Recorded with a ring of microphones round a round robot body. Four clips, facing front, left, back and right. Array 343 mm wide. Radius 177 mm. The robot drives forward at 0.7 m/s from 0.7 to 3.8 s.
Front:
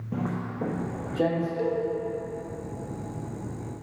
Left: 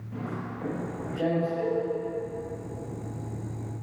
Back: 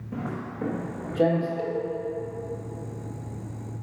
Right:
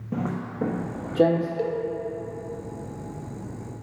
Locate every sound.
0.1 s footsteps: 65° right, 0.9 m; by 1.5 s 95° right, 1.6 m
1.6 s a cowbell: 90° right, 1.4 m; by 1.8 s 95° right, 1.4 m